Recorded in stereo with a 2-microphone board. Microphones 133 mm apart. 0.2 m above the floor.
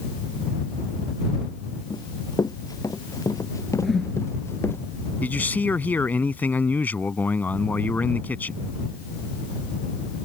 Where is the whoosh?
5° left (ahead or behind).